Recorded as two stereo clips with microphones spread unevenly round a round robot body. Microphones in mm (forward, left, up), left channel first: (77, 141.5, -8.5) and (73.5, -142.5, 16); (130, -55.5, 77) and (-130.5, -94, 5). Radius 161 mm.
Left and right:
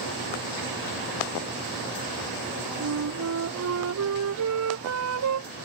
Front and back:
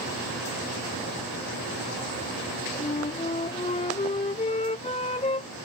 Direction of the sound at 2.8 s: 60° right.